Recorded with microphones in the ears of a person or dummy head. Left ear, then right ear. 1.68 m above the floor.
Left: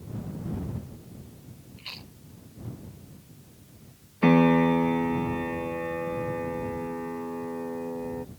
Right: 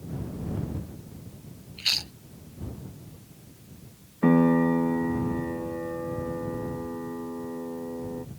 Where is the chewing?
50° right (ahead or behind).